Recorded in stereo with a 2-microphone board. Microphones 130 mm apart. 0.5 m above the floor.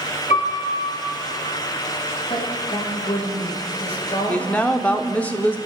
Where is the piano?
65° left (ahead or behind), 2.5 m.